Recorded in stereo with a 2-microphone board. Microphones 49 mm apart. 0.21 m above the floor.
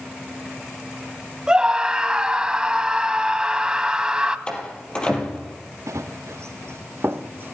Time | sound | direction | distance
1.5 | a scream | 15° right (ahead or behind) | 1.4 m
4.5 | a door slam | 20° left (ahead or behind) | 4.5 m
5.9 | running footsteps | 85° right | 2 m